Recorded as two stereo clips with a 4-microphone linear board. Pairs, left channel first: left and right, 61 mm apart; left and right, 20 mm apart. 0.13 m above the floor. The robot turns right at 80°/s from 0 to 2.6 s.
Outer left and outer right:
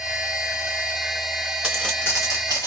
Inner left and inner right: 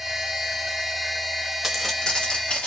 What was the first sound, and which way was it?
Footsteps, 15° right (ahead or behind).